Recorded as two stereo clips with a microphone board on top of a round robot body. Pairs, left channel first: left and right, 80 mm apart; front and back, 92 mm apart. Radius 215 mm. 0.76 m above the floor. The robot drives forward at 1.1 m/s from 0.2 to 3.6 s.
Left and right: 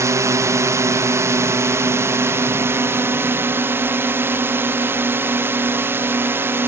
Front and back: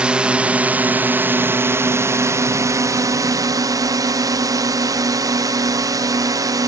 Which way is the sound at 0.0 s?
105° right.